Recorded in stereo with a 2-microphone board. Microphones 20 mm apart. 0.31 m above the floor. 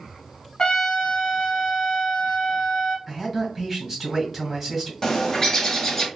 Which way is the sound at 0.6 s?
40° left (ahead or behind).